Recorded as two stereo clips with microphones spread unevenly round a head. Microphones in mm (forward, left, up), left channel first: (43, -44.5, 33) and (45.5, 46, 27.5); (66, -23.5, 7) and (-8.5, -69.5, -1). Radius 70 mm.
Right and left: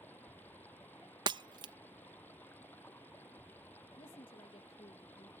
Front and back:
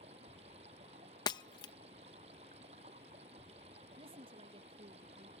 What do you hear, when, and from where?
0.0 s running water: 165° right
1.3 s breaking glass: 60° left
4.0 s a woman speaking: 135° right